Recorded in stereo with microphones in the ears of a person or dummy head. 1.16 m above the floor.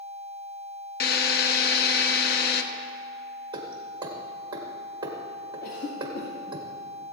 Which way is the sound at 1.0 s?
50° left (ahead or behind).